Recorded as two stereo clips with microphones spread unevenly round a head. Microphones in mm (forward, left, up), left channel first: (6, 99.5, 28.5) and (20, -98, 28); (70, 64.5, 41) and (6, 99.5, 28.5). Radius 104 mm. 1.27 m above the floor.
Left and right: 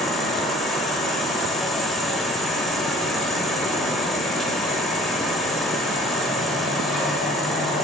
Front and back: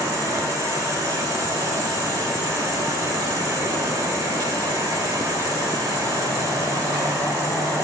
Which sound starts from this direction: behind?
An insect, at 0.0 s.